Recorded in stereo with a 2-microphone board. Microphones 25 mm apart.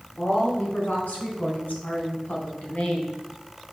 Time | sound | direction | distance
0.2 | a woman speaking | 70° left (ahead or behind) | 3.5 m